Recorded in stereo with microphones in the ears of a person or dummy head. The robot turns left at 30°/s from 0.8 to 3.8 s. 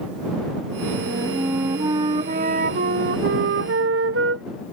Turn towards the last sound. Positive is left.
turn(degrees=-85)